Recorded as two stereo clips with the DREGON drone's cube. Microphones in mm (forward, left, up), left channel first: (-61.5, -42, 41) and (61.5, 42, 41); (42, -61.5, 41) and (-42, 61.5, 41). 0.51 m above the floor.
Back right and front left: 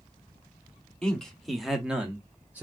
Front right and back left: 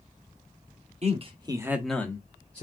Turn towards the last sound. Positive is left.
turn(degrees=-40)